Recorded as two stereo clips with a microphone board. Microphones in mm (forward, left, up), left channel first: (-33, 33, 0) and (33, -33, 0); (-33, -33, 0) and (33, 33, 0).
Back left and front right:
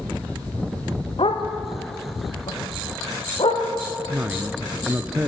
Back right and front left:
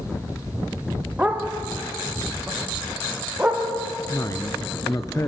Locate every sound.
1.2 s a dog barking: 120° left, 2.5 m
4.1 s a woman speaking: 110° right, 1.3 m